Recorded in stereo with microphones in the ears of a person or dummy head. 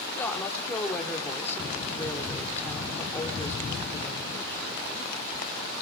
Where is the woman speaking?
15° left (ahead or behind), 3.5 m.